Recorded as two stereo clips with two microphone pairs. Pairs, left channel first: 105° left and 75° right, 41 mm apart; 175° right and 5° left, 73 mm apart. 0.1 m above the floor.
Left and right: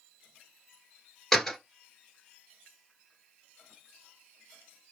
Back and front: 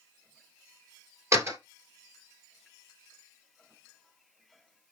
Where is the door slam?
20° left, 1.6 m.